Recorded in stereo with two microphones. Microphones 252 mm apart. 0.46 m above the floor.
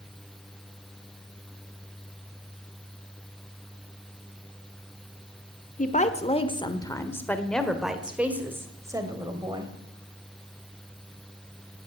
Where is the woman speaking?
35° left (ahead or behind), 1.4 m; by 9.7 s 20° right (ahead or behind), 2.5 m.